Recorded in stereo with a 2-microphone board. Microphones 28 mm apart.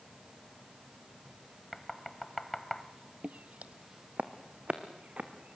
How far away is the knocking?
About 1.1 m.